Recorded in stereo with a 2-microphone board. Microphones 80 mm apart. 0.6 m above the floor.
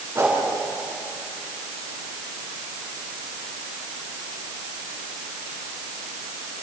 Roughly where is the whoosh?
Right.